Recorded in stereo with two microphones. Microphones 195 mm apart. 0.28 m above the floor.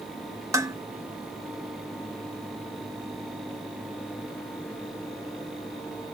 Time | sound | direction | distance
0.5 | dishes clattering | 15° right (ahead or behind) | 0.7 m